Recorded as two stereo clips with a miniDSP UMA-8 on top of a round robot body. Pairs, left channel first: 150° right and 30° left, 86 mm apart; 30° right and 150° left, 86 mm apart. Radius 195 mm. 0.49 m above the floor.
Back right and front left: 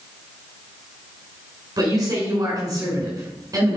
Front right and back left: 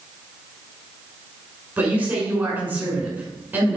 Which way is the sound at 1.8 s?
80° left.